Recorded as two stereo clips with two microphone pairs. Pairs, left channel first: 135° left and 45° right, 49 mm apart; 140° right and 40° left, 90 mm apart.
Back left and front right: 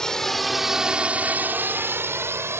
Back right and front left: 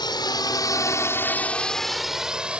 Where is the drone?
150° right; by 2.6 s 35° right.